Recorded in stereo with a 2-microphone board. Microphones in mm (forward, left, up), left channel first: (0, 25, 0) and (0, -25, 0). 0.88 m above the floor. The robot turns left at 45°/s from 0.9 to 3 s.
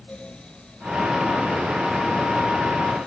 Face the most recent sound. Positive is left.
No sound to turn to.